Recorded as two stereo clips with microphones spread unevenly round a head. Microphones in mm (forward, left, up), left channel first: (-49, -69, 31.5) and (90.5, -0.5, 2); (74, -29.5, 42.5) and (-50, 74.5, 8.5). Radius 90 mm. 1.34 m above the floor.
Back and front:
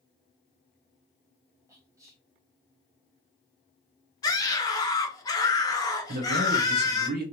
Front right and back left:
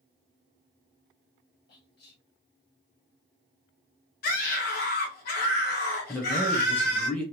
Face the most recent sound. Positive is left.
turn(degrees=45)